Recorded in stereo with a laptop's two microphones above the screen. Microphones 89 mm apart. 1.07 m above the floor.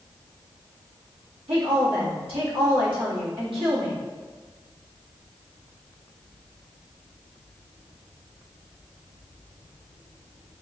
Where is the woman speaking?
80° right, 1.5 m.